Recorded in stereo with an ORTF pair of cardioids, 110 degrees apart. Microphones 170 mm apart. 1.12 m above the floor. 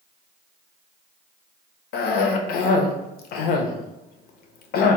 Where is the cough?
70° left, 0.6 m.